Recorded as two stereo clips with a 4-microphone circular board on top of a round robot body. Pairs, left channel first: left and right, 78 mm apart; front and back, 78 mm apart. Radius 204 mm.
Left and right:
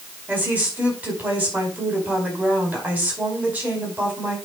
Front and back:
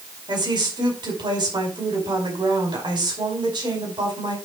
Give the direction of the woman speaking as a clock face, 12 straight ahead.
5 o'clock.